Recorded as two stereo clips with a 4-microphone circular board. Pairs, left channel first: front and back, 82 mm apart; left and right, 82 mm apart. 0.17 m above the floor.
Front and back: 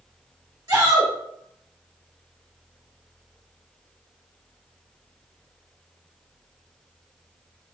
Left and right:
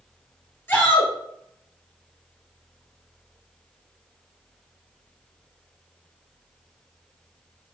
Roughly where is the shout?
Behind left.